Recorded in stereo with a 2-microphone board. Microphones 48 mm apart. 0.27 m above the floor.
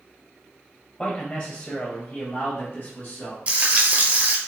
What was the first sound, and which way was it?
A man speaking, 15° left (ahead or behind).